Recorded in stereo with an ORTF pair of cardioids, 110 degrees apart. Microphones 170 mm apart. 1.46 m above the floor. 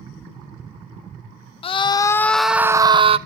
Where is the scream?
35° left, 0.7 m; by 3.2 s 35° right, 0.7 m.